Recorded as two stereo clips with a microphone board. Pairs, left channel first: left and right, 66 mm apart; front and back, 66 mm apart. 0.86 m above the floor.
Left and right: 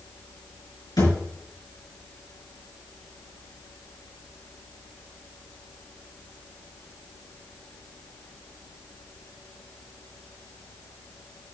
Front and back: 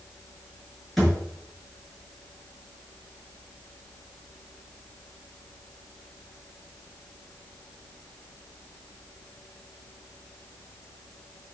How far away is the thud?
About 6 m.